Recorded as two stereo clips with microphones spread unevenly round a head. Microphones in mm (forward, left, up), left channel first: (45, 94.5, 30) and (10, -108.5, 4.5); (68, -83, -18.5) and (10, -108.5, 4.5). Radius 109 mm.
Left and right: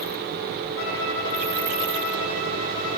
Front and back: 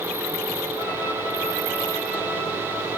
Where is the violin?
80° left, 1.4 m.